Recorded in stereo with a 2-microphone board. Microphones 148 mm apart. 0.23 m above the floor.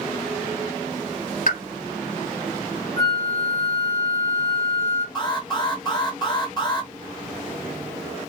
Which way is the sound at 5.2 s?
25° left (ahead or behind).